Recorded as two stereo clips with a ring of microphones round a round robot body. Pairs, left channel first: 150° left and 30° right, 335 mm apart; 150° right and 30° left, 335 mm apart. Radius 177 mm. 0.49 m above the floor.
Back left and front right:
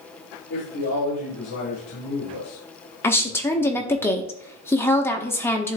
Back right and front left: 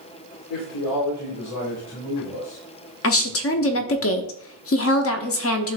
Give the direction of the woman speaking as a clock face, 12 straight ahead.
4 o'clock.